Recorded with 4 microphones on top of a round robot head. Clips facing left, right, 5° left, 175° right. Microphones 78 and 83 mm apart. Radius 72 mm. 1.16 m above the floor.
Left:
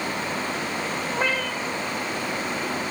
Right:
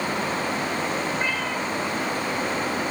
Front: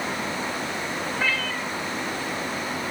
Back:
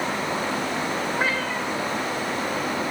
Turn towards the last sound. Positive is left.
turn(degrees=130)